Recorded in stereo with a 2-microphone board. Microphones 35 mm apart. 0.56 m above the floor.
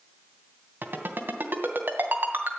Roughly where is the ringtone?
Right.